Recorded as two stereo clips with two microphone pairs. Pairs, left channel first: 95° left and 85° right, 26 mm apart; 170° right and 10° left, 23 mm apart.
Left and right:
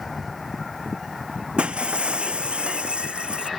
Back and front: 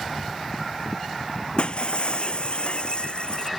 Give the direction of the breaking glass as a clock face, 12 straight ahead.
4 o'clock.